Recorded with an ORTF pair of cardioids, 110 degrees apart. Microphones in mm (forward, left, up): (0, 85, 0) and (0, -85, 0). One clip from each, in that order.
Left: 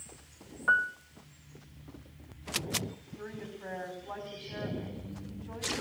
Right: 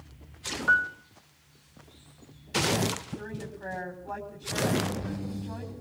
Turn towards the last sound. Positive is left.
turn(degrees=-35)